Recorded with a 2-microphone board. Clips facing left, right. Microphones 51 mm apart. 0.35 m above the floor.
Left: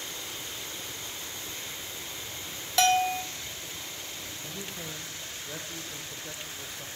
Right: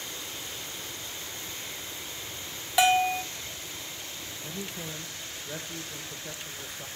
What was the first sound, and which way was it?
A bell, 15° right (ahead or behind).